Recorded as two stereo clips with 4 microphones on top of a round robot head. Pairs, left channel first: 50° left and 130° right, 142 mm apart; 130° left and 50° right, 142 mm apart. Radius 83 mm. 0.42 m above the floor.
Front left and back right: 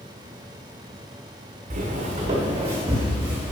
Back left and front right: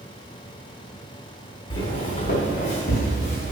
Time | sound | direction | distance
1.7 | footsteps | 175° right | 1.4 m